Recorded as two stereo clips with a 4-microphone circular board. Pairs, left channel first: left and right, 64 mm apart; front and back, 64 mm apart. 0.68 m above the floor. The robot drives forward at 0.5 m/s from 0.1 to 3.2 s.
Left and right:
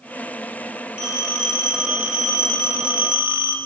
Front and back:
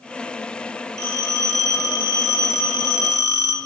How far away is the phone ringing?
About 3 m.